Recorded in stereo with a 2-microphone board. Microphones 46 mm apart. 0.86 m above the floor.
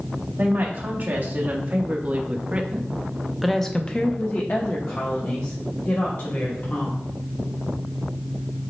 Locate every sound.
0.4 s a woman speaking: 45° right (ahead or behind), 1.8 m; by 7.1 s 55° left (ahead or behind), 1.8 m